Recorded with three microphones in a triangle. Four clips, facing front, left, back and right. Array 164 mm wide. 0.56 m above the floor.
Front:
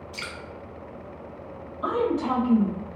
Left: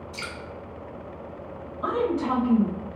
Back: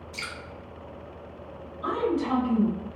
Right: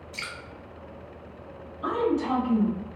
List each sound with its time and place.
0.1 s dripping: 45° right, 1.0 m
1.8 s a woman speaking: 30° left, 2.0 m